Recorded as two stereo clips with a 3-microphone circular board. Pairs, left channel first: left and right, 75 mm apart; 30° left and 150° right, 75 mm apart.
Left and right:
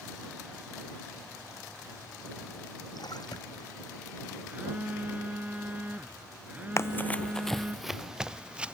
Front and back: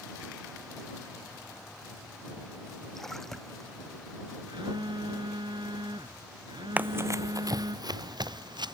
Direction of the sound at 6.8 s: 140° left.